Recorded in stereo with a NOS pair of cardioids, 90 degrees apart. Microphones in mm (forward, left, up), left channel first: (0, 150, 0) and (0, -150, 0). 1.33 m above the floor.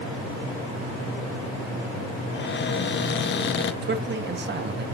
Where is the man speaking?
35° right, 1.9 m.